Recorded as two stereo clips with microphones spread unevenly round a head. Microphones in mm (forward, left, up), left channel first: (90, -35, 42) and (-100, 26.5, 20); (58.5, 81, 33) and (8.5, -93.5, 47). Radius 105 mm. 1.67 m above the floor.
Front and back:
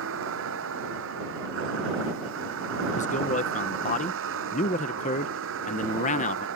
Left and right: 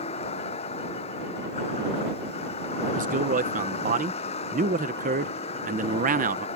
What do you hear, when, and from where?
0.0 s a vehicle: 135° left
3.0 s a man speaking: 65° right